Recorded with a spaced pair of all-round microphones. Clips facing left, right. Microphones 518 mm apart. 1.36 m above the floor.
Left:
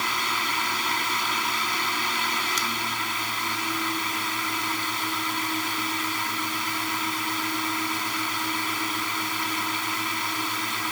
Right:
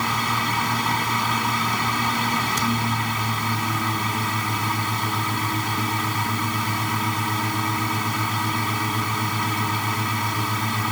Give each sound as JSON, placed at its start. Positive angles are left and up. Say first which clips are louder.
{"t": 0.0, "sound": "a fan", "louder": "right 7 dB", "side_deg": -70}